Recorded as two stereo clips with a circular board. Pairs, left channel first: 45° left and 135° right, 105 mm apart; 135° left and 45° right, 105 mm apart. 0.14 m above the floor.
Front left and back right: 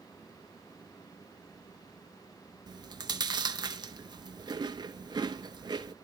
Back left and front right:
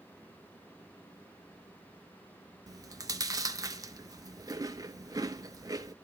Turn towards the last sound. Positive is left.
turn(degrees=-95)